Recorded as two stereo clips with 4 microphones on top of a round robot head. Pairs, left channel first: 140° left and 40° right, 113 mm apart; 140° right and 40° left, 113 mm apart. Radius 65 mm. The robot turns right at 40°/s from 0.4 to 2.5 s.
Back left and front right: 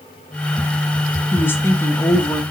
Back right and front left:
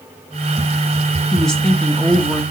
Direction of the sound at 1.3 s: 140° left.